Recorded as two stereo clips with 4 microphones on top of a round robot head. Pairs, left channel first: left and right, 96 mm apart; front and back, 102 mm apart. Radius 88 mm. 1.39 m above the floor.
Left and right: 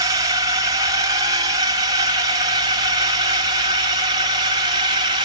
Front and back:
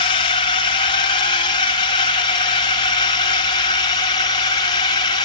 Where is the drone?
40° right; by 5.2 s 45° right.